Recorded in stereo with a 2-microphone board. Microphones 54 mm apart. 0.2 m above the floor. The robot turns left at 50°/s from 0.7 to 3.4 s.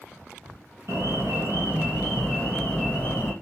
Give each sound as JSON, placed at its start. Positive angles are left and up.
{"t": 0.9, "sound": "an alarm", "azimuth_deg": -105, "distance_m": 2.5}